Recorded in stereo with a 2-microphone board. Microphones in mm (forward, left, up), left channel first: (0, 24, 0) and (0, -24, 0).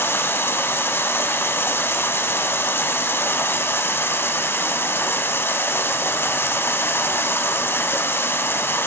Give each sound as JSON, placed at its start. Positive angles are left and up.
{"t": 0.0, "sound": "running water", "side_deg": 55, "distance_m": 1.1}